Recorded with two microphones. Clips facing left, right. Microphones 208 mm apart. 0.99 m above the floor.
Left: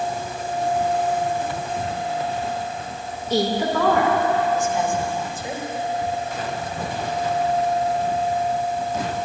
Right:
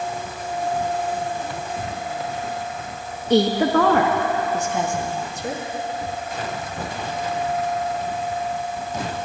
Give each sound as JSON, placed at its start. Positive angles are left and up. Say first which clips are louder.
{"t": 3.3, "sound": "a woman speaking", "louder": "right 4 dB", "side_deg": -75, "distance_m": 1.0}